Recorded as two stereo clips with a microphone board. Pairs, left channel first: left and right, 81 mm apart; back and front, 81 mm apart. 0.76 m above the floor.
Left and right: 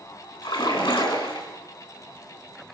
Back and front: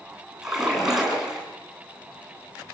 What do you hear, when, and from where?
0.4 s a splash: 85° left, 9 m